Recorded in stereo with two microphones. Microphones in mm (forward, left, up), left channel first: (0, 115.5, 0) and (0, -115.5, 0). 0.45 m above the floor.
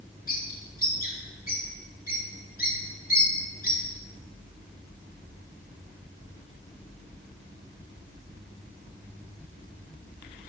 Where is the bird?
40° left (ahead or behind), 1.6 m.